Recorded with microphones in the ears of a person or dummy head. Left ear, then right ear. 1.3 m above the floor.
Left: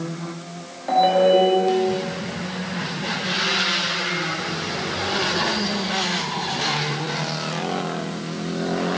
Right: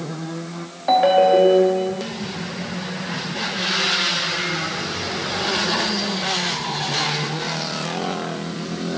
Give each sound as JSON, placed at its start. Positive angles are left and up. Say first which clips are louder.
{"t": 0.9, "sound": "a ringtone", "louder": "right 2 dB", "side_deg": -35, "distance_m": 2.0}